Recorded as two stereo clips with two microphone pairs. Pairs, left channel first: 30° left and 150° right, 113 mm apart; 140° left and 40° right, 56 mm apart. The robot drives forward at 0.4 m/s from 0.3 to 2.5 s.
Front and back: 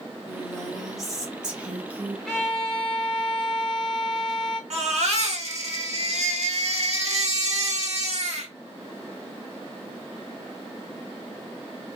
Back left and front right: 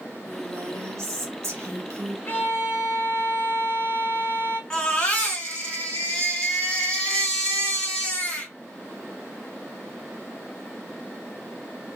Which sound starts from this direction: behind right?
A baby crying, at 4.7 s.